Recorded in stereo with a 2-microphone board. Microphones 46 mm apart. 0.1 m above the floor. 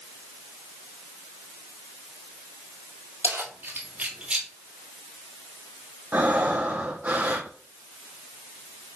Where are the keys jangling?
65° right (ahead or behind), 2 m; by 4.5 s 15° right (ahead or behind), 1.9 m.